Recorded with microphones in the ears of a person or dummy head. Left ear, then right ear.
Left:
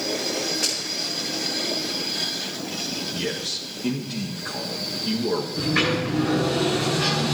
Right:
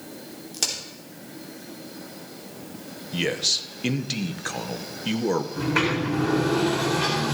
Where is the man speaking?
70° right (ahead or behind), 1.2 m.